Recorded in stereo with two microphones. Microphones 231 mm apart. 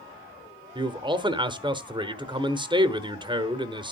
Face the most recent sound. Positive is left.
turn(degrees=-20)  # may be behind; listen again after turning